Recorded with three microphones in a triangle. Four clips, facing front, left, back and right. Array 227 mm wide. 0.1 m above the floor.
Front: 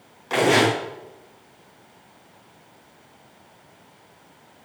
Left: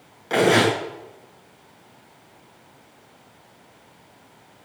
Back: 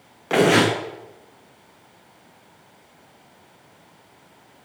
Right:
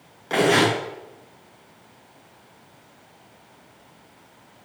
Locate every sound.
0.3 s tearing paper: straight behind, 7 m